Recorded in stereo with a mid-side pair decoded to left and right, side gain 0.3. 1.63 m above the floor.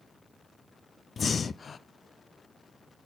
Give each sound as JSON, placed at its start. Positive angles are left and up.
{"t": 1.2, "sound": "breathing", "azimuth_deg": 60, "distance_m": 0.5}